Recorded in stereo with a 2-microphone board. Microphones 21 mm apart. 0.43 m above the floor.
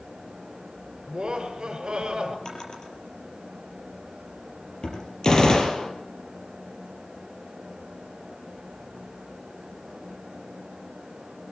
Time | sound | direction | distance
1.1 | laughter | 45° right (ahead or behind) | 6 m
2.5 | a drawer | 35° left (ahead or behind) | 5 m
5.2 | a gunshot | 35° left (ahead or behind) | 3 m